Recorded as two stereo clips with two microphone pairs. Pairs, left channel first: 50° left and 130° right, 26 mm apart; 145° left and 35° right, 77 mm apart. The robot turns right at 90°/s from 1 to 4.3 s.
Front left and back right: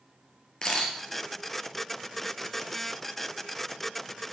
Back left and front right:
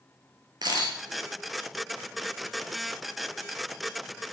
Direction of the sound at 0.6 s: 15° right.